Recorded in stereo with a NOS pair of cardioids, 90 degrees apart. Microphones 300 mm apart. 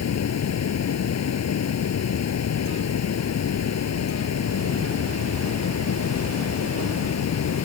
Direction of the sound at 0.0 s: 55° left.